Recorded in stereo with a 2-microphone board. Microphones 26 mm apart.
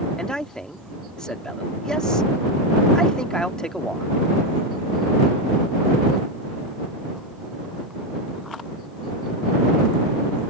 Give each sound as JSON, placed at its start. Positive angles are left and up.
{"t": 0.2, "sound": "a man speaking", "side_deg": 30}